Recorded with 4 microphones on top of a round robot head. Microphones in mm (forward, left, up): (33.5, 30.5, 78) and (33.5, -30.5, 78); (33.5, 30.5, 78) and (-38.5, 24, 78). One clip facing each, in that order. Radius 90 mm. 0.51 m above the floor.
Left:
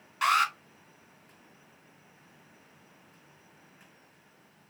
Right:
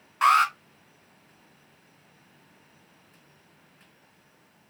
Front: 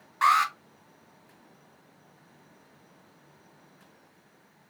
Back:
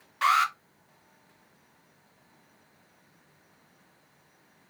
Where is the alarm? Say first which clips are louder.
Right 6 dB, front 1 dB; 45° right, 3 m.